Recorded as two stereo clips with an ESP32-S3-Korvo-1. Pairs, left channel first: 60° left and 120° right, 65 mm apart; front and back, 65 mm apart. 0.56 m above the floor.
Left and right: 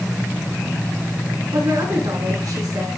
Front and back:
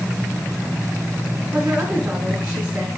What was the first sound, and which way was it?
A woman speaking, 105° right.